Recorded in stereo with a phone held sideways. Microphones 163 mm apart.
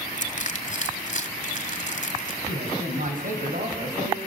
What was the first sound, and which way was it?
Crushing, 50° left (ahead or behind).